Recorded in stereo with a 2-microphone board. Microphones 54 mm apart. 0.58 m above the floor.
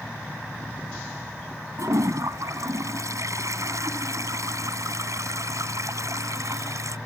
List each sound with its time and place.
1.8 s a toilet flushing: 85° right